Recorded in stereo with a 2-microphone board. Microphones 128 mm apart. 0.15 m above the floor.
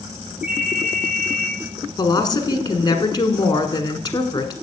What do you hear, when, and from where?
0.4 s a ringtone: 10° right (ahead or behind), 5.5 m
2.0 s a woman speaking: 35° left (ahead or behind), 1.3 m